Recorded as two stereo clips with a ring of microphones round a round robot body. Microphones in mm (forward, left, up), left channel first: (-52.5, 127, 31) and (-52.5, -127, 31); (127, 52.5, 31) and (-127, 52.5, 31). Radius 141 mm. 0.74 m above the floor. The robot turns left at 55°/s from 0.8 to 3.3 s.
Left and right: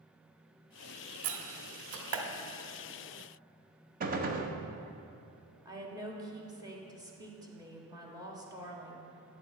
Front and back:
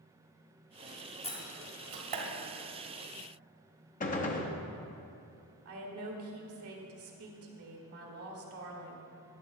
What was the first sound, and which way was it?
A door slam, 65° right.